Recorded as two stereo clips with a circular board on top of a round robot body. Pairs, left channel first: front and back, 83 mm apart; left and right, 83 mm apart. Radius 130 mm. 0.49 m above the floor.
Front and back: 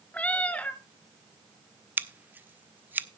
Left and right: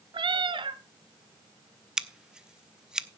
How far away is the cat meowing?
About 1.1 m.